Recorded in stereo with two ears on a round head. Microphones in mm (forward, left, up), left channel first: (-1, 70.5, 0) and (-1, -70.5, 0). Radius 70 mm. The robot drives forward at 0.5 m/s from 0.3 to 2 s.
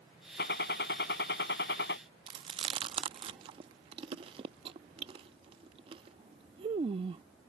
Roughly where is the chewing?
Right.